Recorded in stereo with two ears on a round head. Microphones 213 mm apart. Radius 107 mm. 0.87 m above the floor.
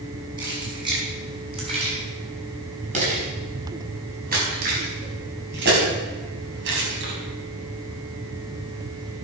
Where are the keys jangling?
20° right (ahead or behind), 6 m; by 7.1 s 60° right (ahead or behind), 5 m.